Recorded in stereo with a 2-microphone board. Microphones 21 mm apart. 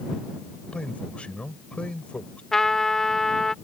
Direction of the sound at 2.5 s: 25° left (ahead or behind).